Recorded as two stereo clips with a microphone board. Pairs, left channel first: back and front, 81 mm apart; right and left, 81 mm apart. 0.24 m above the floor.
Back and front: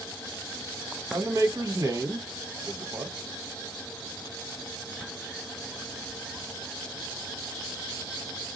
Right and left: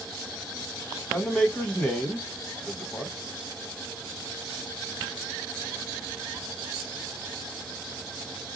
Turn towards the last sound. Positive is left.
turn(degrees=-15)